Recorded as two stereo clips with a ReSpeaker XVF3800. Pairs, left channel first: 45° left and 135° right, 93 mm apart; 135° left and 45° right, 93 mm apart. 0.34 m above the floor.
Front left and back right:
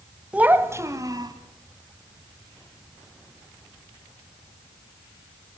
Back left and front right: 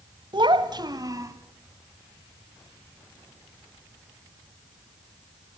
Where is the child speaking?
60° right, 1.5 m; by 1.3 s 95° right, 2 m.